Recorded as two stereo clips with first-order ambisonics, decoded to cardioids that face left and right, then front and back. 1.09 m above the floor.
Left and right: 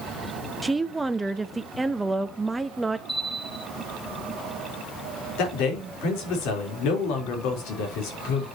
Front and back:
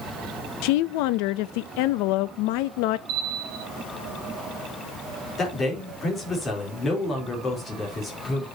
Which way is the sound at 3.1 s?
170° left.